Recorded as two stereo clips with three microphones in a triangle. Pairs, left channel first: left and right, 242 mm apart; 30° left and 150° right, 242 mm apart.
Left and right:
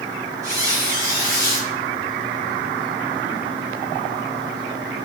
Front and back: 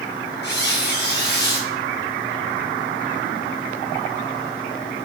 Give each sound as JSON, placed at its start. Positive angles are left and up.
{"t": 0.4, "sound": "a squeak", "azimuth_deg": -15, "distance_m": 0.9}